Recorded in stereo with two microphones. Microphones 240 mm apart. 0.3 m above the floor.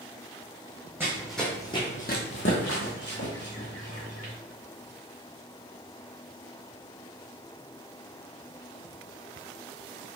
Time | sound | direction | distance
1.0 | running footsteps | 10° right (ahead or behind) | 1.0 m